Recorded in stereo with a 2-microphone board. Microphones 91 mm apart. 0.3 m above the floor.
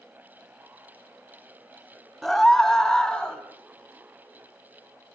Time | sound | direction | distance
2.2 | a scream | 5° left (ahead or behind) | 1.6 m